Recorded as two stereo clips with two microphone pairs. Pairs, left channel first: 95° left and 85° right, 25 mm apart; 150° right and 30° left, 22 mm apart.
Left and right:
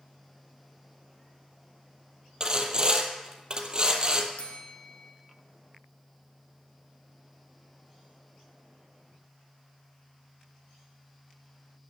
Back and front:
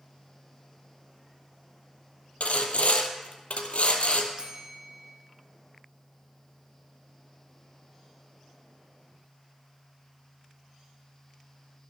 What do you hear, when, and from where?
2.4 s sawing: 145° right, 1.2 m
4.4 s a bell: 75° left, 1.9 m